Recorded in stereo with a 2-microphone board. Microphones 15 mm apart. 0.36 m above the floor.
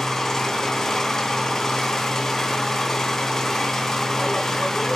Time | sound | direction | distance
0.0 | an engine running | 35° left (ahead or behind) | 2.5 m